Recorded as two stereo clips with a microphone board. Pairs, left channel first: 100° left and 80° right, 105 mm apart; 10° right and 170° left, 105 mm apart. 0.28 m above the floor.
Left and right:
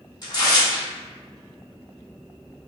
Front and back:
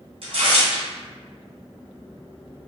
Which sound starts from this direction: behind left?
Tearing paper, at 0.2 s.